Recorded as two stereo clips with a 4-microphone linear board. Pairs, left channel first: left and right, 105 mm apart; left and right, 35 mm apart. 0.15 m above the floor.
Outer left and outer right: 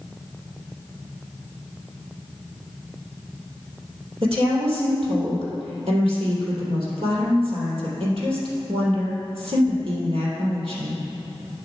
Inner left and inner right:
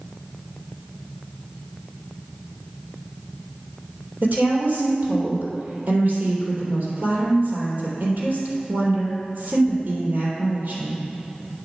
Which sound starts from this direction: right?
A woman speaking, at 4.2 s.